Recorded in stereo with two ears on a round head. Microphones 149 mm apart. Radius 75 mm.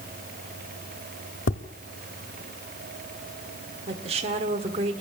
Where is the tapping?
85° left, 1.4 m.